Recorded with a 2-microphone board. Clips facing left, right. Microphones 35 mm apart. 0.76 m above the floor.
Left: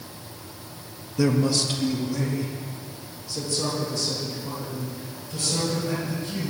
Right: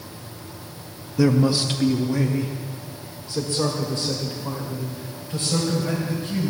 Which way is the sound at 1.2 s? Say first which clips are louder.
Right 3 dB; 5° right (ahead or behind).